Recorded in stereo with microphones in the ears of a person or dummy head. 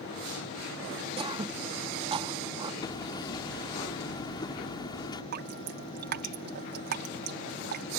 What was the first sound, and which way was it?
Throat clearing, 25° right (ahead or behind).